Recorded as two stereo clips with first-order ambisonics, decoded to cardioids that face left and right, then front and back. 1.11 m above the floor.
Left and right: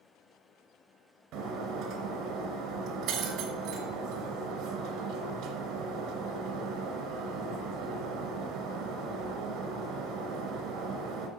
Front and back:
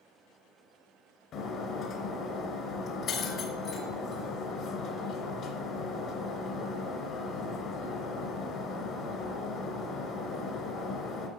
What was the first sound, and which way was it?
Breaking glass, 50° right.